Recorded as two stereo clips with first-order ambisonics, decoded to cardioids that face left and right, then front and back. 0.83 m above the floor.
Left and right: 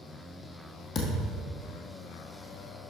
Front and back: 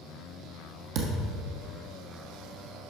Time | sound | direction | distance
0.9 | a thud | 150° left | 1.8 m